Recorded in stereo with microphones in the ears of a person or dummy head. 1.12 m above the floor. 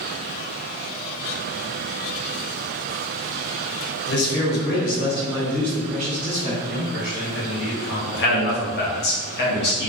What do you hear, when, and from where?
4.1 s a man speaking: 50° left (ahead or behind), 0.9 m; by 6.5 s 15° right (ahead or behind), 1.0 m
6.6 s a man speaking: 70° left (ahead or behind), 1.5 m
8.1 s a man speaking: 45° left (ahead or behind), 0.8 m